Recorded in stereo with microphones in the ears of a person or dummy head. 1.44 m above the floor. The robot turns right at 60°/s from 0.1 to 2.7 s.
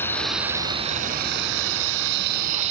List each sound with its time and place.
0.0 s running water: 165° left; by 2.7 s 35° right